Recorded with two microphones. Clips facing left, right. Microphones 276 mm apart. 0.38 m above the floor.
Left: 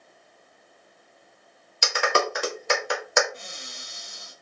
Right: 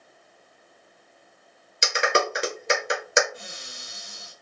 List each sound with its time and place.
1.8 s a clap: 25° right (ahead or behind), 0.9 m
3.3 s a cupboard door: 10° right (ahead or behind), 1.3 m